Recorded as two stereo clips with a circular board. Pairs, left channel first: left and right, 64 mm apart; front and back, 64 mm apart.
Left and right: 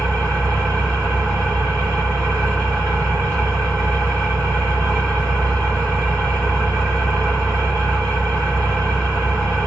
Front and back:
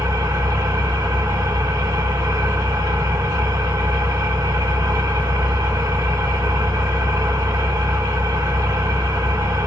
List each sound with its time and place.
0.0 s an engine running: 170° left, 2.5 m